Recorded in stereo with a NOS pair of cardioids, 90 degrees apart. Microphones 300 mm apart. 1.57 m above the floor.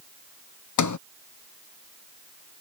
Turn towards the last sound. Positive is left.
turn(degrees=65)